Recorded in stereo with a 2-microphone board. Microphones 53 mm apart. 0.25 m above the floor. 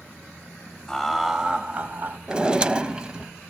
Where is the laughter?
10° left (ahead or behind), 1.0 m; by 2.2 s 40° right (ahead or behind), 1.3 m.